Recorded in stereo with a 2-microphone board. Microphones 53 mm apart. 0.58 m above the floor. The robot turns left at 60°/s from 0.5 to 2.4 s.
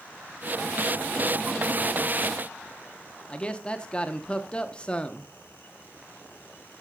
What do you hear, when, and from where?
3.3 s a man speaking: 20° left (ahead or behind), 0.7 m